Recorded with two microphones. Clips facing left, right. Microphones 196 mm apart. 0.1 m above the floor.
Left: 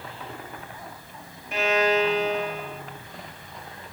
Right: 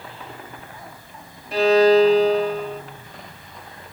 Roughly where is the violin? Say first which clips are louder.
Right 9 dB; right.